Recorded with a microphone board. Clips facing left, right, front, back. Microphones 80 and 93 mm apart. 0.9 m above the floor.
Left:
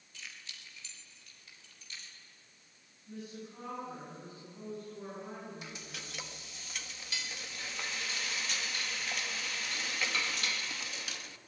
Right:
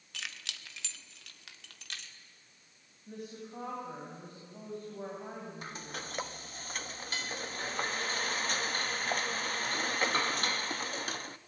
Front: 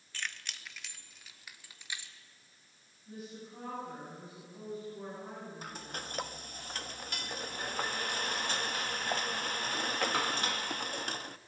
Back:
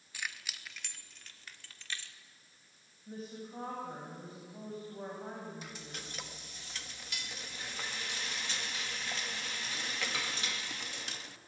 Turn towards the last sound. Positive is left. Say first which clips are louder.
# right 5 dB, front 4 dB
turn(degrees=-40)